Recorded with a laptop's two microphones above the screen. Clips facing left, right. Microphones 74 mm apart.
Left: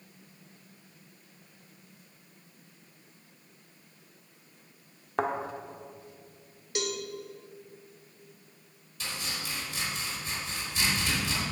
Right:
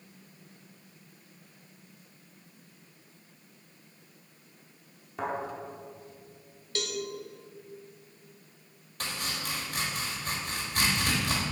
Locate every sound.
5.2 s a thud: 65° left (ahead or behind), 1.0 m
6.8 s a cowbell: 15° left (ahead or behind), 1.2 m
9.0 s chopping: 55° right (ahead or behind), 1.6 m